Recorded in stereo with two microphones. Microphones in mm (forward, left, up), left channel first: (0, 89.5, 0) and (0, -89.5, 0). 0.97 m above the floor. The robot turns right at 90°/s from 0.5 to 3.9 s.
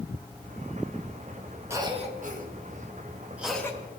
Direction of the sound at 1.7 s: 15° right (ahead or behind).